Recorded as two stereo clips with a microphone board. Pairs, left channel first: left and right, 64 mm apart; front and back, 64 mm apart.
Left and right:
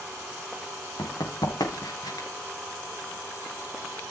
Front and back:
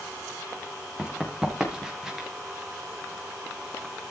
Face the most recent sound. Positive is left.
turn(degrees=95)